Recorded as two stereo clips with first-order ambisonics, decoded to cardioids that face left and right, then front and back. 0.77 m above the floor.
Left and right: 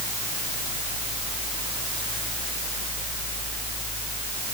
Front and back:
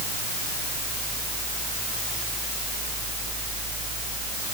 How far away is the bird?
No bird in this recording.